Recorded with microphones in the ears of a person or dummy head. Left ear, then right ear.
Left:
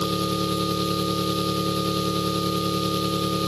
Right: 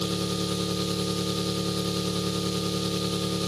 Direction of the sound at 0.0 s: 5° left (ahead or behind).